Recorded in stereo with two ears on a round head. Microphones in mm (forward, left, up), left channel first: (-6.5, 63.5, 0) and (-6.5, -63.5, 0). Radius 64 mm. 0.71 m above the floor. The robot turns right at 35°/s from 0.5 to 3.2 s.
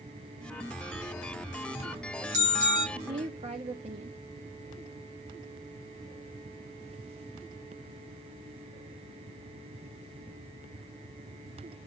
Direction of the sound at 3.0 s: 40° right (ahead or behind).